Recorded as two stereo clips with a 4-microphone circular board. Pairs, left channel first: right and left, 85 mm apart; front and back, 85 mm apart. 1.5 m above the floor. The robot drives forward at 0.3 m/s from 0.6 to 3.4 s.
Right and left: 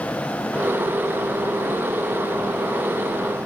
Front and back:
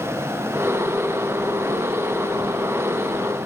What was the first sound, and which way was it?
Only background noise.